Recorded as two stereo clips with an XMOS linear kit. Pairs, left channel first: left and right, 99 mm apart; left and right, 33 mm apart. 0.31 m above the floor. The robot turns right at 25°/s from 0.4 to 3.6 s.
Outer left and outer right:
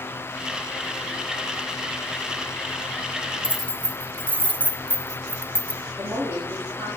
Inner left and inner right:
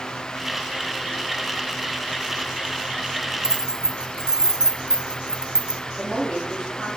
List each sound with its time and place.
3.4 s keys jangling: 20° right (ahead or behind), 0.9 m
6.0 s a woman speaking: 30° right (ahead or behind), 5.5 m